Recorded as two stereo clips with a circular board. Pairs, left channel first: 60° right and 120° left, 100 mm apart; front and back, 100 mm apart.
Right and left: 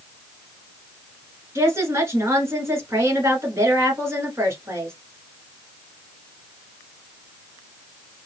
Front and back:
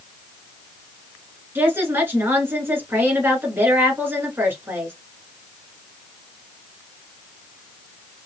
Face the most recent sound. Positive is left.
turn(degrees=140)